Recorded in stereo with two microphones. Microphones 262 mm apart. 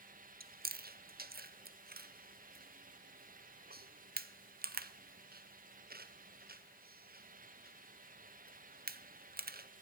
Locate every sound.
0.4 s chewing: 35° right (ahead or behind), 0.6 m